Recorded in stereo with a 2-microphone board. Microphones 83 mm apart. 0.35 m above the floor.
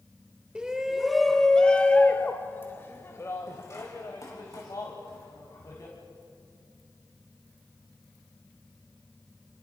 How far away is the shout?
About 1.3 m.